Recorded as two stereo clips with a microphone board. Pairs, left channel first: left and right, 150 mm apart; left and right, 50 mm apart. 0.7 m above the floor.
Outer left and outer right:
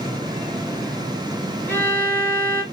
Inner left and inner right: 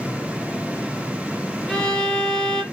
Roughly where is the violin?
Centre.